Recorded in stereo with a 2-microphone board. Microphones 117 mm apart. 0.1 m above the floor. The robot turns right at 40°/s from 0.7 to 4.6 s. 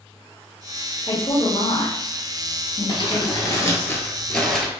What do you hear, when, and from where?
1.1 s a woman speaking: 45° left (ahead or behind), 2.5 m; by 3.9 s 15° left (ahead or behind), 2.5 m
2.9 s crumpling: 110° left, 1.2 m; by 4.7 s 175° left, 1.2 m